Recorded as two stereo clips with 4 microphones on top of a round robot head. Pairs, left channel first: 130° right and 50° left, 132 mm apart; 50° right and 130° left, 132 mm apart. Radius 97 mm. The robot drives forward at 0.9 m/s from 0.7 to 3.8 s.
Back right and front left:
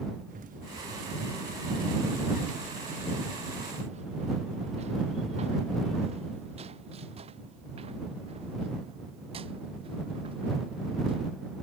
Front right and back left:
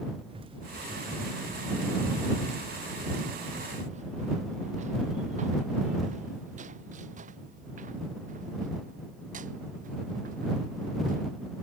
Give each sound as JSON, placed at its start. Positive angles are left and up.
{"t": 0.3, "sound": "running footsteps", "azimuth_deg": 80}